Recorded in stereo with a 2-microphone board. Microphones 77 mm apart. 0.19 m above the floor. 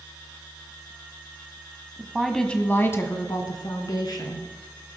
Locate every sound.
2.0 s a woman speaking: 15° right (ahead or behind), 1.2 m; by 4.5 s 65° left (ahead or behind), 2.5 m